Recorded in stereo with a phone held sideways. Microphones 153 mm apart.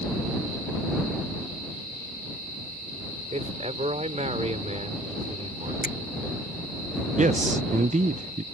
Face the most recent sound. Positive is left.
turn(degrees=-50)  # may be behind; listen again after turning